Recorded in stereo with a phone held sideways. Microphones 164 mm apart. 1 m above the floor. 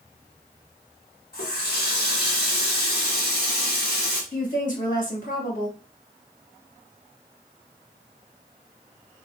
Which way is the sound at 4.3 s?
60° left (ahead or behind).